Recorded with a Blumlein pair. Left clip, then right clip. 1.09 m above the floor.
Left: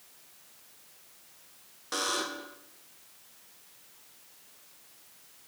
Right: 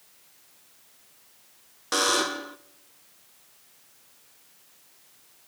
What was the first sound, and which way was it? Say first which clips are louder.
A buzzer: right 8 dB; 25° right.